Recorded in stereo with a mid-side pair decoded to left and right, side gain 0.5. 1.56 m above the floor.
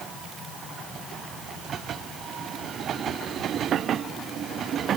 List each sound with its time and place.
Only background noise.